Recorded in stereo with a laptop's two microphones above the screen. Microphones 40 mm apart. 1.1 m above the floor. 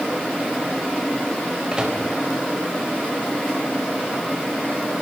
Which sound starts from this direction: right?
A microwave, at 1.7 s.